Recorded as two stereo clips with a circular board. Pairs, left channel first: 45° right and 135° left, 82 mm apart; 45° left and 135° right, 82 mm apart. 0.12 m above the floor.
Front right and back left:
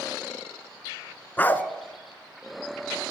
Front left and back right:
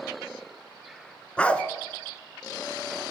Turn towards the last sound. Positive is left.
turn(degrees=-10)